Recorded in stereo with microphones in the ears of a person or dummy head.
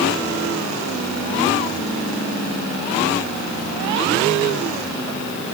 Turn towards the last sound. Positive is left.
No sound to turn to.